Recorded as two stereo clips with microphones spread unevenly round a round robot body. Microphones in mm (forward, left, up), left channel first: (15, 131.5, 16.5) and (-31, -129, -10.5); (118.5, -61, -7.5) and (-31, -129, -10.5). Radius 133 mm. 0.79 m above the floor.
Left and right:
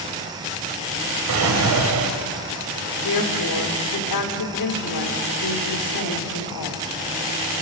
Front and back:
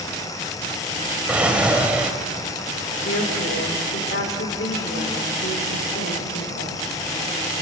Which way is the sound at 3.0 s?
60° left.